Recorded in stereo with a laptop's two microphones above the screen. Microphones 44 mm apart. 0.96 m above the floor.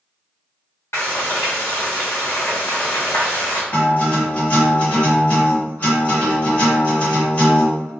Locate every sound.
0.9 s frying: 65° left (ahead or behind), 1.2 m
3.7 s a guitar: 40° left (ahead or behind), 1.5 m